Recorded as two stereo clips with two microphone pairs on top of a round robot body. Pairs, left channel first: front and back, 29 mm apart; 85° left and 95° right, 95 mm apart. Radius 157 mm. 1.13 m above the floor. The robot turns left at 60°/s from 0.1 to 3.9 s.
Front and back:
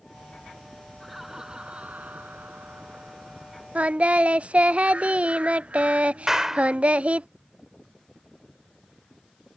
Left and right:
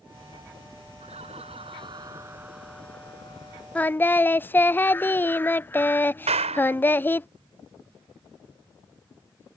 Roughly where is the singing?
Behind left.